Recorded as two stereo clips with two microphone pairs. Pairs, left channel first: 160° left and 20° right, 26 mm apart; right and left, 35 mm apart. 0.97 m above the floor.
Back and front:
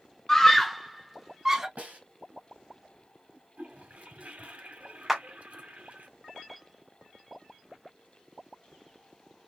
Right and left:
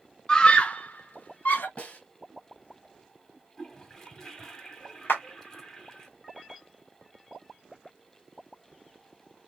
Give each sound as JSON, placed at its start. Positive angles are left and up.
{"t": 0.3, "sound": "a scream", "azimuth_deg": -145, "distance_m": 0.7}
{"t": 1.8, "sound": "a snare drum", "azimuth_deg": -40, "distance_m": 3.0}
{"t": 3.6, "sound": "a toilet flushing", "azimuth_deg": -20, "distance_m": 1.5}
{"t": 5.1, "sound": "a clap", "azimuth_deg": -105, "distance_m": 1.5}